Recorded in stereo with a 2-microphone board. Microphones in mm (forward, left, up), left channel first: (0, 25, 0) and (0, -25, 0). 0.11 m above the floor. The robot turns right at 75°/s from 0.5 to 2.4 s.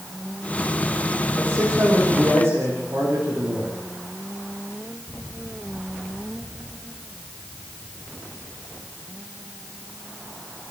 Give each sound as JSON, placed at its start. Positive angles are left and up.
{"t": 1.4, "sound": "a man speaking", "azimuth_deg": -130, "distance_m": 10.0}